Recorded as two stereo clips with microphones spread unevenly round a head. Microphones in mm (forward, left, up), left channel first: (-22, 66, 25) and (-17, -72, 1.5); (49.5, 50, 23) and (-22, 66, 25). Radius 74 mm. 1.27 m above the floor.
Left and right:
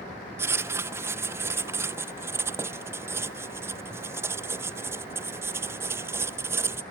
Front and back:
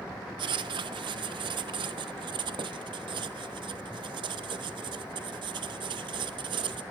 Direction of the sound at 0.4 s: 160° right.